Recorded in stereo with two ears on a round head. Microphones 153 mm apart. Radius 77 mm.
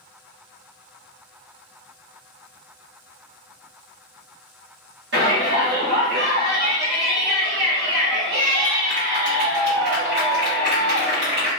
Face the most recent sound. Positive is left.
turn(degrees=-75)  # may be behind; listen again after turning